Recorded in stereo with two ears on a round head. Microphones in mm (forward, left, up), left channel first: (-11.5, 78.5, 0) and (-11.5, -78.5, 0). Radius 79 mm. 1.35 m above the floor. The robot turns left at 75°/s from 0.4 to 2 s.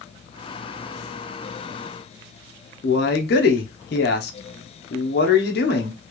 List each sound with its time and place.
2.8 s a man speaking: 60° left (ahead or behind), 0.7 m